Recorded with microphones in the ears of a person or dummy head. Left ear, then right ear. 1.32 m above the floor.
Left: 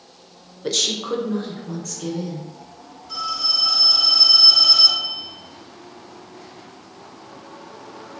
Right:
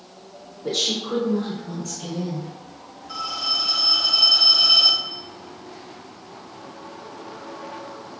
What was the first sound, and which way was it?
A woman speaking, 75° left (ahead or behind).